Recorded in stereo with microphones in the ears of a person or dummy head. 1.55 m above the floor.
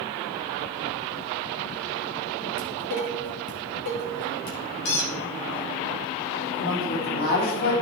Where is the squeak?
45° left (ahead or behind), 0.8 m.